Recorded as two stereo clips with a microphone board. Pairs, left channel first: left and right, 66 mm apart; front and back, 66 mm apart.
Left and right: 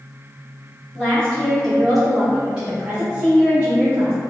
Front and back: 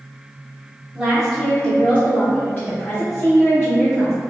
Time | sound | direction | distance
0.9 | a woman speaking | 120° left | 0.9 m